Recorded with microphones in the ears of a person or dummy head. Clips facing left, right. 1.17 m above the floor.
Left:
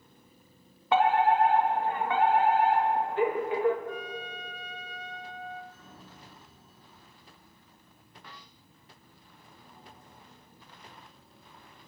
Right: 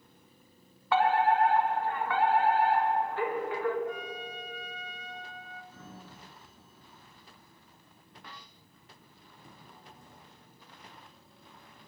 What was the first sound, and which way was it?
A fire alarm, 25° left (ahead or behind).